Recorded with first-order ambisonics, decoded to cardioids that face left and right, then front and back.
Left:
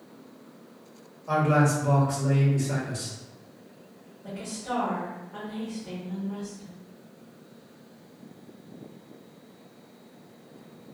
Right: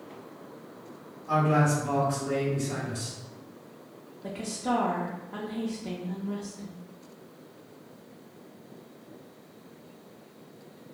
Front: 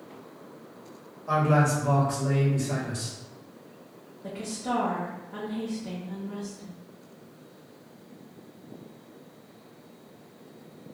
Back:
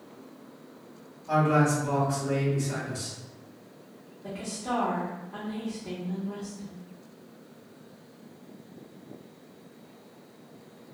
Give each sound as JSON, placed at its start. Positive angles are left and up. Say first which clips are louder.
{"t": 1.3, "sound": "a man speaking", "louder": "left 1 dB, even", "azimuth_deg": 40, "distance_m": 1.2}
{"t": 4.2, "sound": "a woman speaking", "louder": "right 3 dB, front 1 dB", "azimuth_deg": -75, "distance_m": 0.6}